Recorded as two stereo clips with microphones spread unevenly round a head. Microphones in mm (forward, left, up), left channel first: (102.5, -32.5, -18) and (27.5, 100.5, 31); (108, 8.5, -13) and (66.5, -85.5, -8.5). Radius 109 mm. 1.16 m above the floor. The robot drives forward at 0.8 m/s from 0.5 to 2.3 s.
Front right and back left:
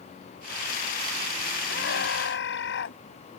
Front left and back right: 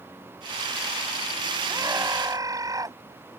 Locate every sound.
1.7 s a scream: 55° right; by 3.0 s 60° right